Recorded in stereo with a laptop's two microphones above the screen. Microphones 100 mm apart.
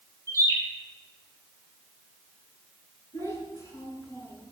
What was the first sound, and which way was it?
A bird, 35° right (ahead or behind).